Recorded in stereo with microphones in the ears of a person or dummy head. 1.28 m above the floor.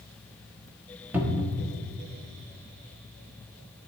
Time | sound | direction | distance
1.1 | a cupboard door | 10° right (ahead or behind) | 1.4 m